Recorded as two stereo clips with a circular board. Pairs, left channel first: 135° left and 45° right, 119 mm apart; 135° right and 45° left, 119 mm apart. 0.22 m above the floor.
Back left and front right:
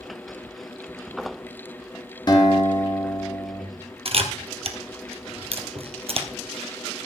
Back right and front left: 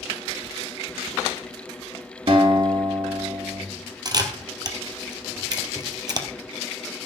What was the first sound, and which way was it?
A guitar, 85° left.